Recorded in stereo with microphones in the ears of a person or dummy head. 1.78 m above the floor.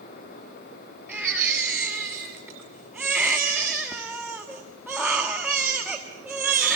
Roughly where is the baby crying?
Centre.